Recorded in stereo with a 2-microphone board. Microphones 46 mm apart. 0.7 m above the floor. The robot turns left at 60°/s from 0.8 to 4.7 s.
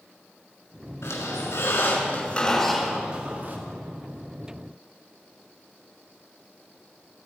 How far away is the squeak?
About 5.5 m.